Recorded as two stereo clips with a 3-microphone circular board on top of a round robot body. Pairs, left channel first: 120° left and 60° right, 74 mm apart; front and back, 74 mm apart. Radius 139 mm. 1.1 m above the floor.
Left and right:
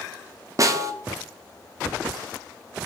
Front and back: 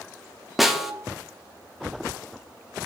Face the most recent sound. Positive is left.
turn(degrees=-95)